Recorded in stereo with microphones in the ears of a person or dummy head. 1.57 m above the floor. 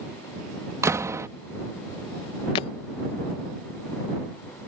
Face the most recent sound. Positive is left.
turn(degrees=20)  # may be behind; listen again after turning